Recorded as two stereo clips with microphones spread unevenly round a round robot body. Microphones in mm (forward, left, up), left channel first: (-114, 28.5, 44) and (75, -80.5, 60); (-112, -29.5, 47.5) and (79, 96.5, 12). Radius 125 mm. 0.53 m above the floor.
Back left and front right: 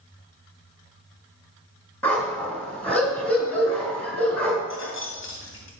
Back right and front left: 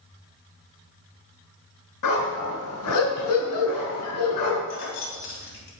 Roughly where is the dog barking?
Behind right.